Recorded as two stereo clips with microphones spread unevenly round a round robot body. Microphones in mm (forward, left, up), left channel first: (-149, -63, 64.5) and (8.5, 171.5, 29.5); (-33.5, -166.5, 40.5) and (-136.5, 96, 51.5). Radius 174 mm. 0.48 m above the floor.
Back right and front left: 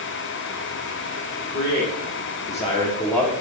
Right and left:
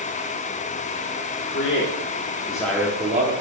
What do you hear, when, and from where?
1.4 s a man speaking: 70° right, 2.5 m; by 3.3 s 135° left, 1.5 m